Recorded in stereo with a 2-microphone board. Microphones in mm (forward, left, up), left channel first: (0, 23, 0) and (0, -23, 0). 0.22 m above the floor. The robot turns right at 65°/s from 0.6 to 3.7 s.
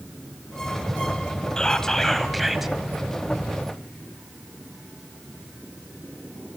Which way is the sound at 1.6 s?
20° left (ahead or behind).